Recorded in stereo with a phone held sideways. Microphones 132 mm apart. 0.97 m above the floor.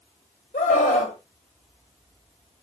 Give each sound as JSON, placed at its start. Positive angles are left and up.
{"t": 0.5, "sound": "a scream", "side_deg": 75, "distance_m": 4.0}